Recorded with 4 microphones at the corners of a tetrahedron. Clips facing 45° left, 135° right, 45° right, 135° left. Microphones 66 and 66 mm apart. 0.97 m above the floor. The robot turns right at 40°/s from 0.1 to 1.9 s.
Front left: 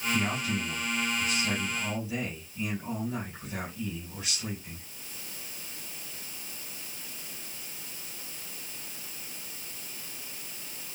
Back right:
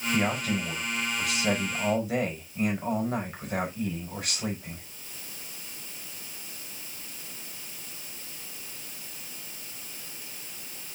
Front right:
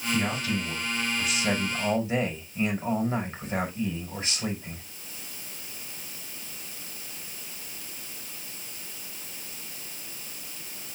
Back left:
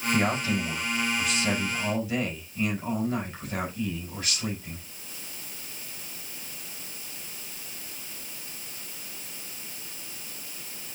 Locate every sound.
0.1 s a man speaking: 175° right, 4.5 m; by 4.8 s 105° right, 4.5 m